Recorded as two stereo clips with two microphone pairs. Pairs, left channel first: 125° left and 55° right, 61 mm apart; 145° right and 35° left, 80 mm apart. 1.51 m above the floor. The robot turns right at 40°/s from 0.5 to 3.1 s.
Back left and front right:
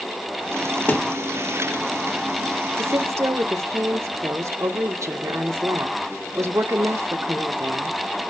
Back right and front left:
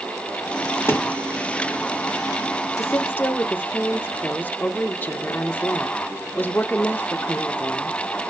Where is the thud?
165° left, 1.5 m; by 1.1 s 175° left, 1.5 m.